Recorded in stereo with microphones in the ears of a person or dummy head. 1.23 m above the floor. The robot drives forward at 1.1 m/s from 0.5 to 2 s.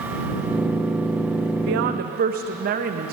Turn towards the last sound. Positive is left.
turn(degrees=-45)  # may be behind; listen again after turning